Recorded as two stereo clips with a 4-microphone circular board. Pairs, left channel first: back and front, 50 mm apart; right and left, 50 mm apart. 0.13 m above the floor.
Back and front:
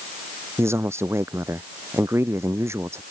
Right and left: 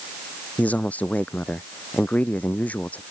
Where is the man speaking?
30° right.